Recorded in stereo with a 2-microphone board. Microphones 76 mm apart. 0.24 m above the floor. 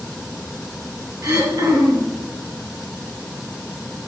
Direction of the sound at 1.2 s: 45° right (ahead or behind).